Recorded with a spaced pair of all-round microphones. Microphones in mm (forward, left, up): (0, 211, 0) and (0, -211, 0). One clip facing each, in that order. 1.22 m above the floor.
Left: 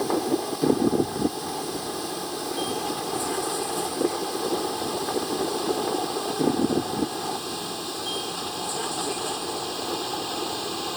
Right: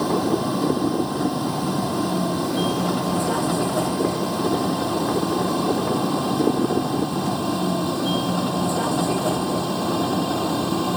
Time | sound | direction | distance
0.0 | a vehicle | 75° right (ahead or behind) | ?